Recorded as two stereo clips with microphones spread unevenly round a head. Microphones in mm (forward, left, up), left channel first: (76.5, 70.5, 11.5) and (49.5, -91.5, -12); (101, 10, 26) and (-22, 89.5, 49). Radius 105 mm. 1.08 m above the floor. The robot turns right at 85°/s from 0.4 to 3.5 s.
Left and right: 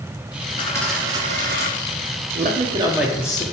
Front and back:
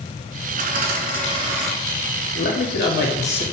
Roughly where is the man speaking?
Right.